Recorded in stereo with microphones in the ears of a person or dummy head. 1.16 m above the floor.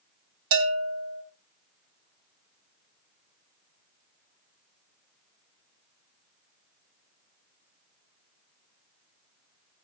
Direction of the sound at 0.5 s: 75° right (ahead or behind).